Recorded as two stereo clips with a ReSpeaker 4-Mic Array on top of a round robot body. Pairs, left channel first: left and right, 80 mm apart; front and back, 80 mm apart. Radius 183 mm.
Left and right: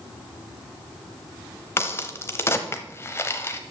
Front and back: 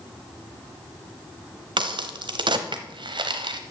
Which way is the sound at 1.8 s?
150° left.